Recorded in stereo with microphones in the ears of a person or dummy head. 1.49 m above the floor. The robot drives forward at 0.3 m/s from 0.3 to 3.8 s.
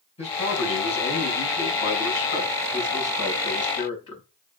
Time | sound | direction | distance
0.2 | a man speaking | 30° left (ahead or behind) | 6 m